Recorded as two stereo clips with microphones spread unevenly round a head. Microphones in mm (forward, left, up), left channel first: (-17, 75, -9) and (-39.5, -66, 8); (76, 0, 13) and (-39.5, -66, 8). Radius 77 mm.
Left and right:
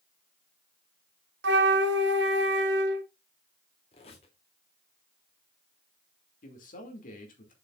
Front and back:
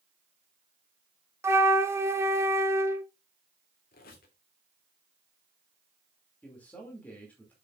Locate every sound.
1.4 s a flute: 80° right, 1.2 m
3.9 s a squeak: 25° left, 2.5 m
6.4 s a man speaking: 110° left, 2.5 m